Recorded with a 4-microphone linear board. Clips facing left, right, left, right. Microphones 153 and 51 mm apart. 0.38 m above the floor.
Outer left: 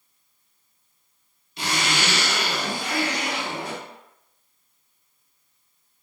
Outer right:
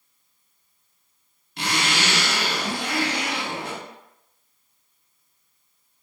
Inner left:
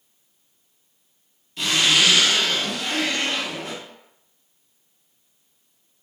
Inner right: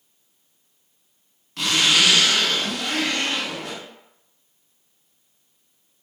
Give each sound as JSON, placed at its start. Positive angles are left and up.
{"t": 1.6, "sound": "a zipper", "side_deg": -80, "distance_m": 1.1}